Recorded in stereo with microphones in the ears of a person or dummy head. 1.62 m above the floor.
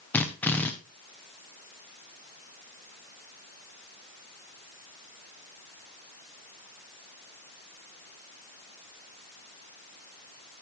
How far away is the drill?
About 1.3 m.